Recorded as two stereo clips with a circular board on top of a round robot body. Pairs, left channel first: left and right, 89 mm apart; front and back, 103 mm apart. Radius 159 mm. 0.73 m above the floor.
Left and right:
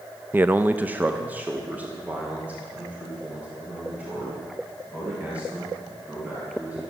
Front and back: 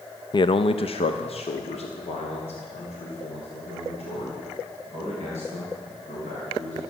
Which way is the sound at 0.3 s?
30° right.